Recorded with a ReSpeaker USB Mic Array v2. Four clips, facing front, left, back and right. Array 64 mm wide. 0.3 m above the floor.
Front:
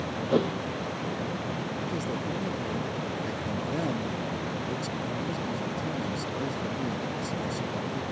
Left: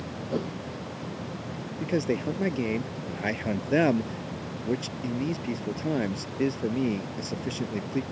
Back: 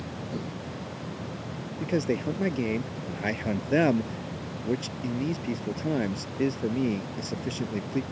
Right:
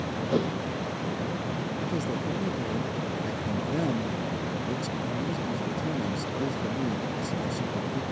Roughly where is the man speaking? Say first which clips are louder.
Left 7 dB, back 4 dB; behind left.